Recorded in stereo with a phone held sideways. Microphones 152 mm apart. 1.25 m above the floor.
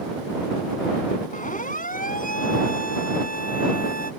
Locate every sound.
1.3 s a siren: 60° left (ahead or behind); by 4.1 s 75° left (ahead or behind)